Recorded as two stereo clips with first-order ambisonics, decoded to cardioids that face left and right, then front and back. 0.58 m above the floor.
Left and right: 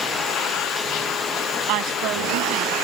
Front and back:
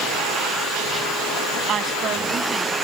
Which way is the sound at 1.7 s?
115° right.